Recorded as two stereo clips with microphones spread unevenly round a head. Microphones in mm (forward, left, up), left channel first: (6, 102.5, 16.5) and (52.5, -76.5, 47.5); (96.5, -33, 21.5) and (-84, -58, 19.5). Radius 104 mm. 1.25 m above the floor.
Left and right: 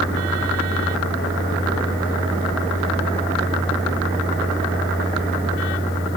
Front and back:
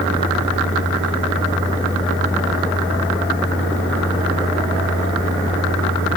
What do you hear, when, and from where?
Only background noise.